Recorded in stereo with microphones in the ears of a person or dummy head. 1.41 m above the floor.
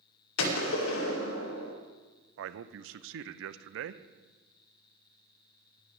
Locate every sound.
0.4 s a gunshot: 75° left (ahead or behind), 2 m
2.4 s a man speaking: 70° right (ahead or behind), 0.7 m